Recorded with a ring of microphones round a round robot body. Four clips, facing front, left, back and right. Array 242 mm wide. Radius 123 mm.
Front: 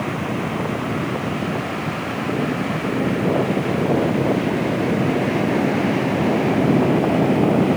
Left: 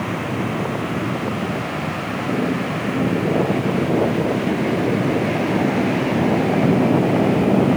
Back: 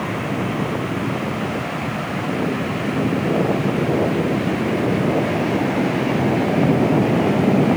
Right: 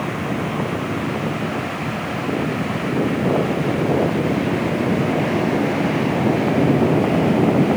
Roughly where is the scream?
No scream in this recording.